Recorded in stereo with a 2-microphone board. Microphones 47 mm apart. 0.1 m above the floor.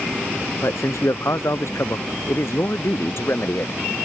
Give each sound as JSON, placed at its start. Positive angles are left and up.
{"t": 0.6, "sound": "a man speaking", "side_deg": 70}